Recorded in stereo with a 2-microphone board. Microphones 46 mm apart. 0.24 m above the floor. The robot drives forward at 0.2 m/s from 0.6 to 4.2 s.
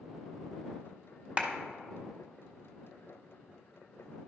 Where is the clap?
25° right (ahead or behind), 0.9 m.